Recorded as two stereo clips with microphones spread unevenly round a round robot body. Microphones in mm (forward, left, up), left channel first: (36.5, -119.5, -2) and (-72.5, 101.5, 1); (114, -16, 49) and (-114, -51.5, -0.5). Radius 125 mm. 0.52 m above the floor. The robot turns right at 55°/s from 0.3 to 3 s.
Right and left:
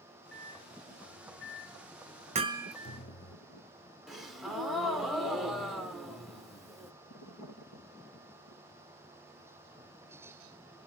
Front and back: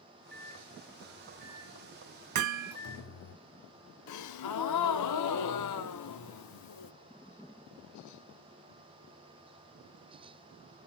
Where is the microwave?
145° right, 1.0 m; by 3.4 s straight ahead, 1.0 m.